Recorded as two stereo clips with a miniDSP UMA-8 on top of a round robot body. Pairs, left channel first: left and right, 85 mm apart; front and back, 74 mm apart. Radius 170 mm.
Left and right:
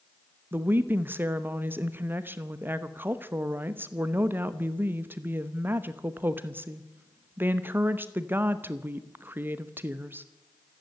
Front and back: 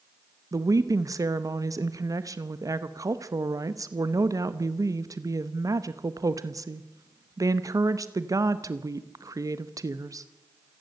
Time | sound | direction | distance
0.5 | a woman speaking | 150° right | 1.1 m